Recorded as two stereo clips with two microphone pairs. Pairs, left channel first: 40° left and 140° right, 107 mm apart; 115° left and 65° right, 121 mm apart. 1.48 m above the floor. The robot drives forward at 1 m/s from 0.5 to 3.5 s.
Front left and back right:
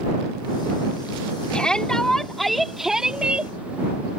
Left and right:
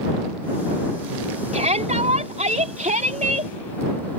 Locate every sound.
1.5 s a shout: 40° right; by 3.5 s 60° right